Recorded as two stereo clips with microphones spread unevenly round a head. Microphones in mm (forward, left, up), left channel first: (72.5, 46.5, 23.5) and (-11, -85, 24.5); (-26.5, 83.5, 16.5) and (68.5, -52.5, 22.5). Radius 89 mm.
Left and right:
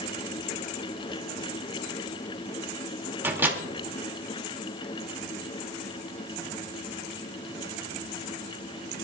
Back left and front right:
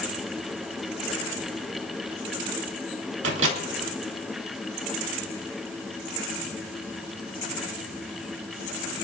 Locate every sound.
3.2 s a microwave: 45° right, 2.5 m